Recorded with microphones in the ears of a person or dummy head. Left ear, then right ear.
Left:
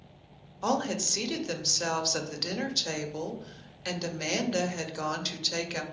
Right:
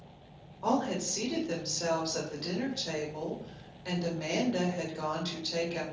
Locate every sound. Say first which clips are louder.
0.6 s a woman speaking: left 2 dB; 65° left (ahead or behind), 0.8 m